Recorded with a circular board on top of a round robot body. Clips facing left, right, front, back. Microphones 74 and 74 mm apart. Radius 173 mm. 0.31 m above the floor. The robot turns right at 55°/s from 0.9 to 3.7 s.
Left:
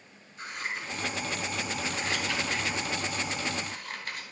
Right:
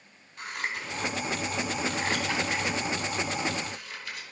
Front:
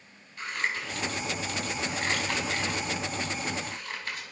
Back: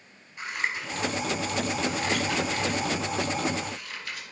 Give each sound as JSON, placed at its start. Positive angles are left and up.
{"t": 0.4, "sound": "scissors", "azimuth_deg": -100, "distance_m": 4.0}